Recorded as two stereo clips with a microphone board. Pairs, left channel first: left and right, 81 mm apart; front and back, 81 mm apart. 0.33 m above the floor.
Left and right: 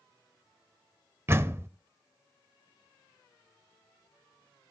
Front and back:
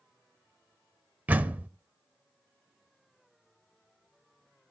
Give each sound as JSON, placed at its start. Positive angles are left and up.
{"t": 1.3, "sound": "a door slam", "azimuth_deg": -125, "distance_m": 0.6}